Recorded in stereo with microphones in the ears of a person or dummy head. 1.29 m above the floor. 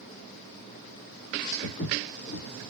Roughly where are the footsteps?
Left.